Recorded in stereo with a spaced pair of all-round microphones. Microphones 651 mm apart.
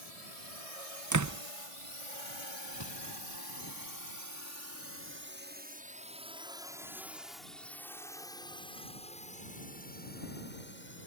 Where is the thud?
40° left (ahead or behind).